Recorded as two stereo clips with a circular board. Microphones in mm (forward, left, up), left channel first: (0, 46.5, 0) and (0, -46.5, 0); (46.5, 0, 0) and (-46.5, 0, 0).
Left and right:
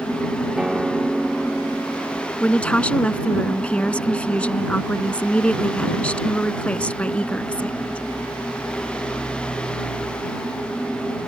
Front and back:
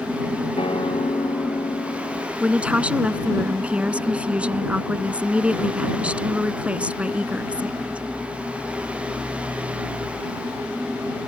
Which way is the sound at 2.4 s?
135° left.